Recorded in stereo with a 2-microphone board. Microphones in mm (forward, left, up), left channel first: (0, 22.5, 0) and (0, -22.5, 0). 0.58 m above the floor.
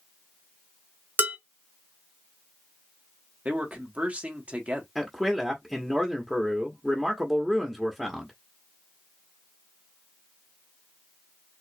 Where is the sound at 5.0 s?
10° right (ahead or behind), 1.1 m.